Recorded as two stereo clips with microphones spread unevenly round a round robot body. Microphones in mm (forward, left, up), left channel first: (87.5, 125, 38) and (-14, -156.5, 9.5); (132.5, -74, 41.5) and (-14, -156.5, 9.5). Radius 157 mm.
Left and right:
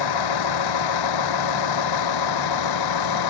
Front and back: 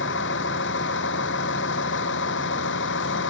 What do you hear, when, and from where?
0.0 s a vehicle: 75° left; by 3.3 s 65° left